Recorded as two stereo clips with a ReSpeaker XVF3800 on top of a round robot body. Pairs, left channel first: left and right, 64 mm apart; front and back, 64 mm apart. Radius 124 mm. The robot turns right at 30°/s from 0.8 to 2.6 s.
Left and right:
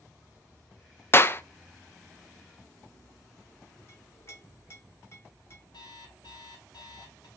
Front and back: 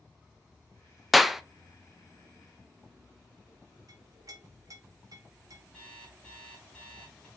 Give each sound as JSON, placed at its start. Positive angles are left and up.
{"t": 1.1, "sound": "a clap", "azimuth_deg": 95, "distance_m": 0.5}
{"t": 3.9, "sound": "a clink", "azimuth_deg": 140, "distance_m": 1.4}
{"t": 5.7, "sound": "an alarm clock", "azimuth_deg": 80, "distance_m": 1.6}